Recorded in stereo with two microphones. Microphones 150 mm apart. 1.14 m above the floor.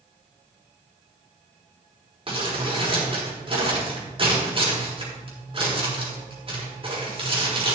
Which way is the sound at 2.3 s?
35° right (ahead or behind).